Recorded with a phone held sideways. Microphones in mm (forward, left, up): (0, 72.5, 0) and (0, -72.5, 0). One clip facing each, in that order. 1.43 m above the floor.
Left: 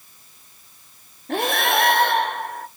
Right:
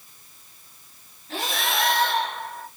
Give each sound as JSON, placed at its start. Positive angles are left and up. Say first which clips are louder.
{"t": 1.3, "sound": "breathing", "louder": "left 7 dB", "side_deg": 60, "distance_m": 1.1}